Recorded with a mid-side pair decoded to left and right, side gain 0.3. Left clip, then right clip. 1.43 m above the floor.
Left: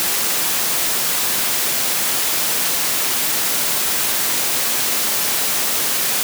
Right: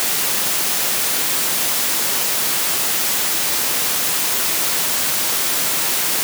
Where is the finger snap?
No finger snap in this recording.